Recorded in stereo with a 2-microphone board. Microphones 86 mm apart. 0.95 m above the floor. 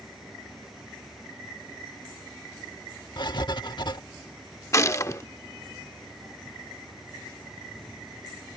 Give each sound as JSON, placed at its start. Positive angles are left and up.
{"t": 3.2, "sound": "writing", "side_deg": 65}
{"t": 4.7, "sound": "a gunshot", "side_deg": 35}